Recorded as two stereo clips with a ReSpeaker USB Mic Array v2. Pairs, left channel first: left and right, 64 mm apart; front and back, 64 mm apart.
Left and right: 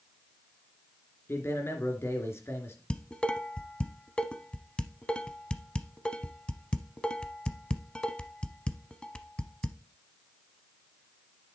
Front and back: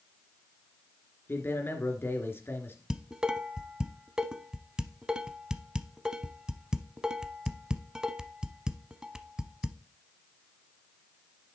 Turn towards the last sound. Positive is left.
turn(degrees=130)